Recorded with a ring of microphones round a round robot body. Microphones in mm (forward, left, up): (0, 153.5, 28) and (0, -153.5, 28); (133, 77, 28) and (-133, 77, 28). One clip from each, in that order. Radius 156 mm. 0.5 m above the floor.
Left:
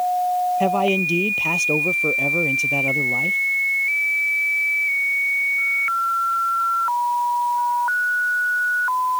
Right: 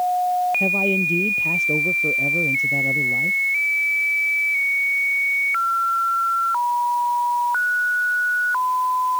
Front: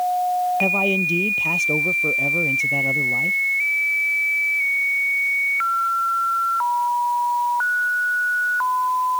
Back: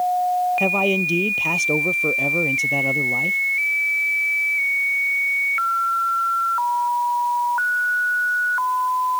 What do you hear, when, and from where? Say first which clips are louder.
0.6 s a man speaking: even, even; 125° left